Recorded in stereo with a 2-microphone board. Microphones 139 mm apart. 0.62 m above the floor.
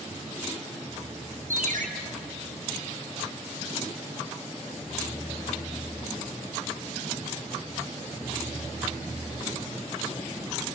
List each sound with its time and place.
1.5 s a ringtone: 85° right, 2.5 m